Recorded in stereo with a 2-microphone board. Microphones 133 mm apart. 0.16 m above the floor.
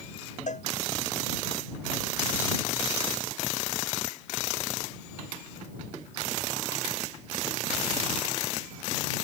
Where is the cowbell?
65° left (ahead or behind).